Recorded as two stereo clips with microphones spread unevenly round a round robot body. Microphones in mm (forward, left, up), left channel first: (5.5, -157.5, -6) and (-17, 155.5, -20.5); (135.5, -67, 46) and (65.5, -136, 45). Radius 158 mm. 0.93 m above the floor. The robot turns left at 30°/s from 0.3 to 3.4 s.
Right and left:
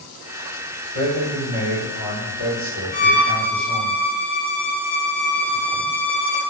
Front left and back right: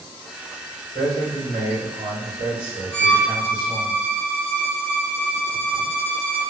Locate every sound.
0.9 s a man speaking: 85° left, 1.9 m; by 3.9 s 10° left, 1.9 m
2.9 s a violin: 10° right, 1.3 m; by 6.4 s 25° right, 1.3 m